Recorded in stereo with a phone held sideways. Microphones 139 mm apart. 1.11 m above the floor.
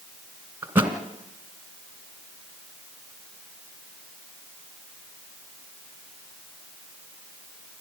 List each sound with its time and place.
0.6 s a thud: 15° right (ahead or behind), 2 m